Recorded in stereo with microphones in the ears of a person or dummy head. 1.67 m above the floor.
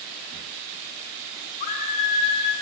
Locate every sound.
1.6 s a scream: 45° left (ahead or behind), 2 m